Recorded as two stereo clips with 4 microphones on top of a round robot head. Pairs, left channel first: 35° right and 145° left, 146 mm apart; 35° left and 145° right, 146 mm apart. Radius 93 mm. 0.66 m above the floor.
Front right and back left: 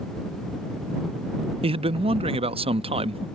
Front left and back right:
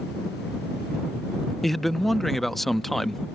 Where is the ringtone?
I don't hear a ringtone.